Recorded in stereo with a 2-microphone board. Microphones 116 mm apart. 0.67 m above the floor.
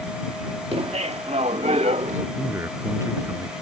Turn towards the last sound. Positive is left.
turn(degrees=-25)  # may be behind; listen again after turning